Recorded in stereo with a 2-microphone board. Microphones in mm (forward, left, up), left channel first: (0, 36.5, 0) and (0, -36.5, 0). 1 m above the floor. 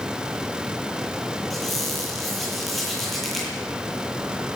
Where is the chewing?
I don't hear chewing.